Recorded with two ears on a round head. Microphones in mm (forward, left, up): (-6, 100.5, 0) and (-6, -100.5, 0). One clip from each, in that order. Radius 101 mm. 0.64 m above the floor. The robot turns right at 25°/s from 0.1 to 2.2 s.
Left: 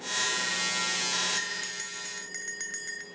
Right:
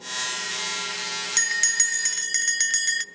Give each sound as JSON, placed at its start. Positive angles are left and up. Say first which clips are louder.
{"t": 1.4, "sound": "a bell", "louder": "right 10 dB", "side_deg": -50, "distance_m": 0.6}